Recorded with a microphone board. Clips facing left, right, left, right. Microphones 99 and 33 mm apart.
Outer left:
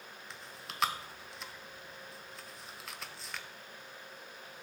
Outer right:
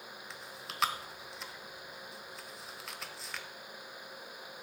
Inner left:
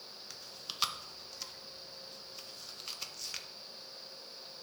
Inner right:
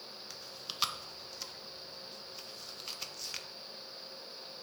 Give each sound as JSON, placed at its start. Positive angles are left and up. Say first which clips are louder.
{"t": 0.3, "sound": "chewing", "louder": "even, even", "side_deg": 0, "distance_m": 0.6}